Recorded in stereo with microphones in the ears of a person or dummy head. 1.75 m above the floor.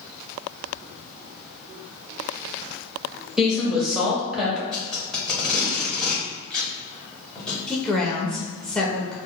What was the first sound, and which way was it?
A woman speaking, 5° right (ahead or behind).